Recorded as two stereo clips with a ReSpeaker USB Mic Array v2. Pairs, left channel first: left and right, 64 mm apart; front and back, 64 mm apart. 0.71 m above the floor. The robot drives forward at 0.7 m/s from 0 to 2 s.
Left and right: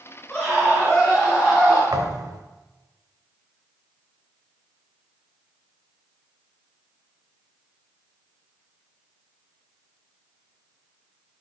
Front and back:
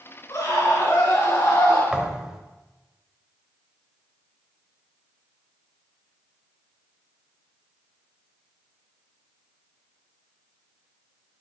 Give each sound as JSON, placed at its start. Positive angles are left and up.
{"t": 0.3, "sound": "a scream", "azimuth_deg": 10, "distance_m": 7.0}
{"t": 1.9, "sound": "a thud", "azimuth_deg": -100, "distance_m": 1.2}